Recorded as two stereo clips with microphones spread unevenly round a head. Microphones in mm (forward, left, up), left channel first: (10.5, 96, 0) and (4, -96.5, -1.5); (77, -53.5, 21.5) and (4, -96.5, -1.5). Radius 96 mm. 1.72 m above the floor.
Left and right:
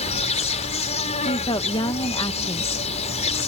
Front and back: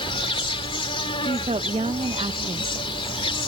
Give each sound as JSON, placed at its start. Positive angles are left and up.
{"t": 0.0, "sound": "an insect", "azimuth_deg": 30}
{"t": 1.2, "sound": "a woman speaking", "azimuth_deg": 155}